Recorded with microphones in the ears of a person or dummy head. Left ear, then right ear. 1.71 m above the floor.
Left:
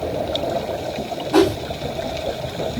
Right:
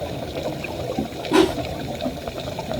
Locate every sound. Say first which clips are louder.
1.3 s a whoosh: left 1 dB; 15° right (ahead or behind), 3.5 m